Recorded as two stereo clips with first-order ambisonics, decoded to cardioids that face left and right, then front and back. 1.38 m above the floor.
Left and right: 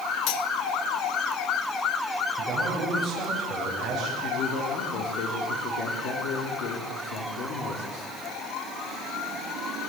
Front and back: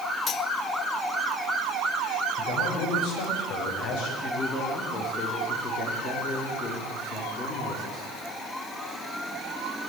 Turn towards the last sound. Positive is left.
turn(degrees=60)